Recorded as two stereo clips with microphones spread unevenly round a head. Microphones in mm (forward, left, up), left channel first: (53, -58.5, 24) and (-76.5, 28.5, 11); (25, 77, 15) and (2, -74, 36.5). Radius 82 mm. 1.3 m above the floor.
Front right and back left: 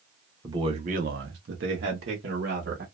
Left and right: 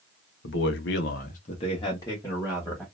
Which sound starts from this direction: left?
A man speaking, at 0.4 s.